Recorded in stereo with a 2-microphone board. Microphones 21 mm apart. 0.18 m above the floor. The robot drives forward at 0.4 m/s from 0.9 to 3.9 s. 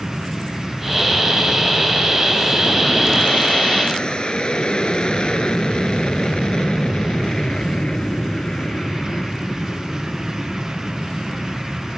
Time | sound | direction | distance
0.0 | an aircraft | 45° left (ahead or behind) | ?